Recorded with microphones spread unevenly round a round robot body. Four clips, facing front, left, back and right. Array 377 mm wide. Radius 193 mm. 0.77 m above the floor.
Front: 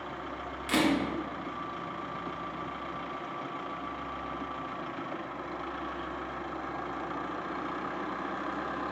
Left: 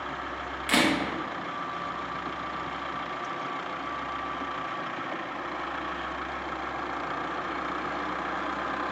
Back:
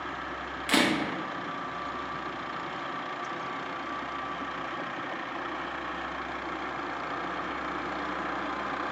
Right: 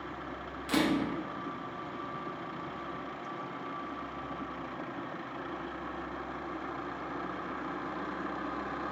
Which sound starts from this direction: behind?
A camera shutter, at 0.7 s.